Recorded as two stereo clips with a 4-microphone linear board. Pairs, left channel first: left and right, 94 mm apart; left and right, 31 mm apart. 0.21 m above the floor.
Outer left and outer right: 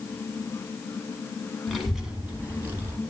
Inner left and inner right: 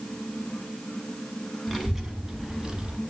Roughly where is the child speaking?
Centre.